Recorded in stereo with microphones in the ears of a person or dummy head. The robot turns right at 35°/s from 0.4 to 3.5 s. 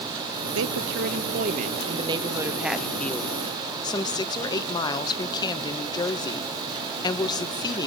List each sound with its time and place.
0.6 s a woman speaking: 75° right, 1.4 m; by 7.9 s 25° left, 1.4 m